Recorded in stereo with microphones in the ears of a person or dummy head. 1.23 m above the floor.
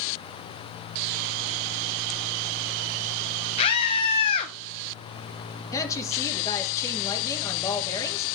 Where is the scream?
30° left (ahead or behind), 0.7 m.